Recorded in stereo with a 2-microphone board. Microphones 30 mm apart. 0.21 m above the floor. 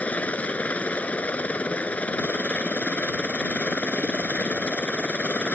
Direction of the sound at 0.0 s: 55° left (ahead or behind).